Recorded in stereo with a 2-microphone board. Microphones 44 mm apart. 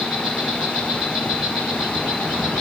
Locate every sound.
0.0 s an insect: 5° right (ahead or behind), 4.5 m